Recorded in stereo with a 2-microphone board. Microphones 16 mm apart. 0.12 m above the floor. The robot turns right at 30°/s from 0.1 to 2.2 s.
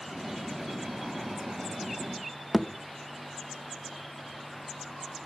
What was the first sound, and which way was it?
A thud, 35° left (ahead or behind).